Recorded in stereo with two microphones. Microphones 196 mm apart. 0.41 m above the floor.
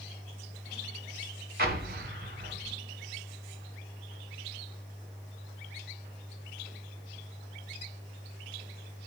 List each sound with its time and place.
1.6 s an explosion: 50° right (ahead or behind), 1.1 m